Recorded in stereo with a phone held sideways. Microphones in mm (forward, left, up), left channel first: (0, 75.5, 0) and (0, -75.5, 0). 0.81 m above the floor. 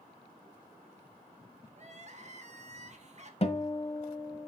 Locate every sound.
1.8 s crying: 45° right (ahead or behind), 1.4 m
3.4 s a guitar: 40° left (ahead or behind), 1.4 m